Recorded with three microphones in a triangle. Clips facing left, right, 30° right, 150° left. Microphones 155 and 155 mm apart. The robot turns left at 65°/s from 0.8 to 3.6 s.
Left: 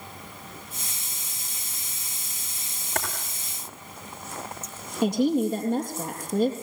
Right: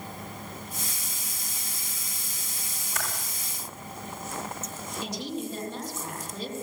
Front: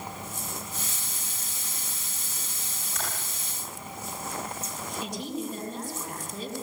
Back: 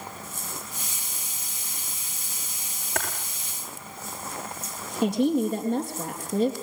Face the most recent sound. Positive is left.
turn(degrees=115)